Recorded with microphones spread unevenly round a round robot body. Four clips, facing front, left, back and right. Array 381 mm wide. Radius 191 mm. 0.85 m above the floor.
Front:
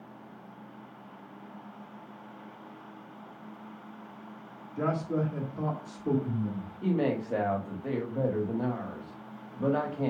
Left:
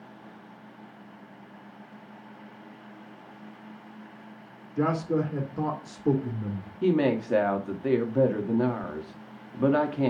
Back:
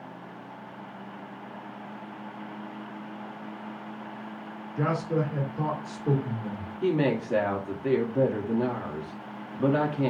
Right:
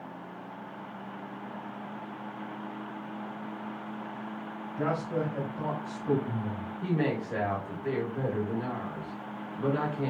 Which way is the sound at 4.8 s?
85° left.